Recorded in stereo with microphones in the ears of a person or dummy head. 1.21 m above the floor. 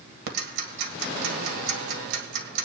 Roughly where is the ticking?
Right.